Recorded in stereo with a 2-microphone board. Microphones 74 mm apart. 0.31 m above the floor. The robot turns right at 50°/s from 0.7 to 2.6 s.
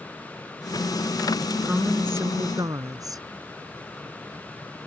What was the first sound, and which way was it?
A woman speaking, 170° right.